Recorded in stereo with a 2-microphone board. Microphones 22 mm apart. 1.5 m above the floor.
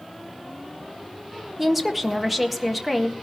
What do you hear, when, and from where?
1.6 s a woman speaking: 5° right (ahead or behind), 1.6 m